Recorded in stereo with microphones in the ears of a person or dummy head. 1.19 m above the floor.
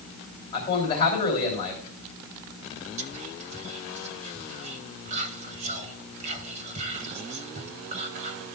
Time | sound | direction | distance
0.5 | a man speaking | 25° left (ahead or behind) | 3 m
3.0 | whispering | 40° right (ahead or behind) | 1.4 m